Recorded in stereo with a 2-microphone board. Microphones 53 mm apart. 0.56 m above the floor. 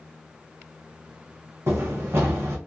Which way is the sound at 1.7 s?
60° right (ahead or behind).